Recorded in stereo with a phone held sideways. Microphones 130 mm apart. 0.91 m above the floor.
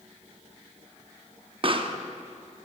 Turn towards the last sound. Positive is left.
turn(degrees=-40)  # may be behind; listen again after turning